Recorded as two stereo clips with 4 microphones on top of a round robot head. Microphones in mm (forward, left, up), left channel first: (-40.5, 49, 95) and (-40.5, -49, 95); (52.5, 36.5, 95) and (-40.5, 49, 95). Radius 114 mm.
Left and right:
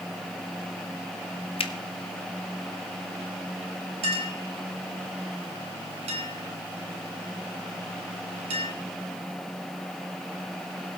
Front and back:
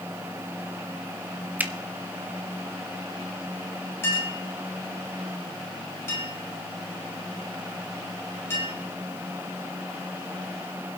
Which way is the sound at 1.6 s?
100° left.